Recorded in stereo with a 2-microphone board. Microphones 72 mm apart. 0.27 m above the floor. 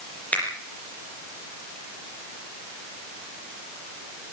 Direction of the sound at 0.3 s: 20° left (ahead or behind).